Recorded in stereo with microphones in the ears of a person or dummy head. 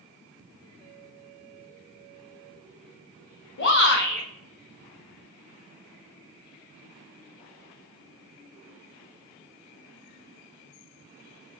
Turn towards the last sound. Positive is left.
turn(degrees=65)  # may be behind; listen again after turning